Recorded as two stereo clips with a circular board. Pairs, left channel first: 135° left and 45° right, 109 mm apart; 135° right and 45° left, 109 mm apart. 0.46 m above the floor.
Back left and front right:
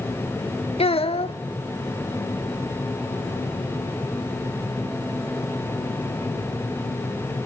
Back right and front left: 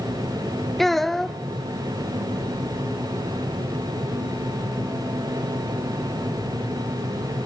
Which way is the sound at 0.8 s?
140° left.